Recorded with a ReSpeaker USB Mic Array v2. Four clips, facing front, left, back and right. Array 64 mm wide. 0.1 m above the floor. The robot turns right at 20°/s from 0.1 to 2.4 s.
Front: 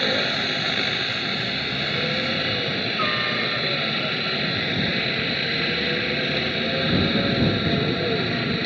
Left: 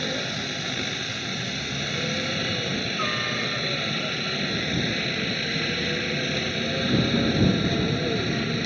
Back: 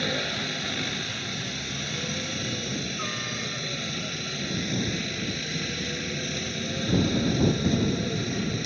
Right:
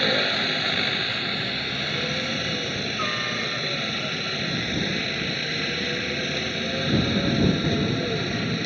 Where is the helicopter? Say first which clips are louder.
Right 6 dB, front 6 dB; 50° right; by 8.7 s 5° right.